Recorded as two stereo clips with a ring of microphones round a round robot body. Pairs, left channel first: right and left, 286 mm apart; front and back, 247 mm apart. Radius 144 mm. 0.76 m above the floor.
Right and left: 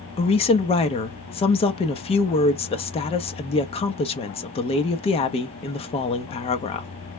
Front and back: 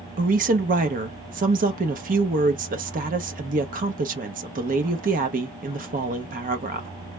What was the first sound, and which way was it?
A woman speaking, 145° right.